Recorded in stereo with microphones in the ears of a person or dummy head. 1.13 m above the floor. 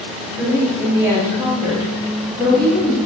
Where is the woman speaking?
10° right (ahead or behind), 1.1 m.